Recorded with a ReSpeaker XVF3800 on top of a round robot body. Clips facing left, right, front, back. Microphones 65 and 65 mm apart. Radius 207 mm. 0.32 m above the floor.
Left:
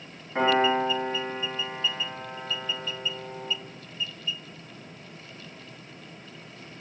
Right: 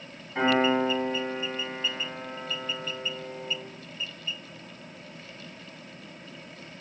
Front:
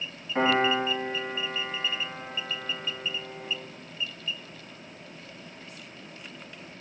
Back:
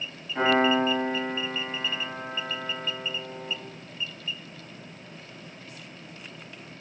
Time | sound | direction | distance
0.3 | a piano | 55° left | 3 m